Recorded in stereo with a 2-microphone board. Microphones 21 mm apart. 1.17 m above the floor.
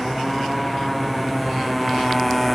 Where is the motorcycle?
Centre (ahead or behind).